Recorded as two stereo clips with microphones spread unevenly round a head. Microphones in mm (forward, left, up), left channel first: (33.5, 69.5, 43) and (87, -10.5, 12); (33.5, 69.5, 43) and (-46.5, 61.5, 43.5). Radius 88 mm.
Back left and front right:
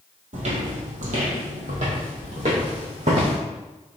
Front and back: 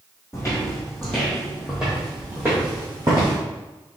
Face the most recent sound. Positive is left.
turn(degrees=-105)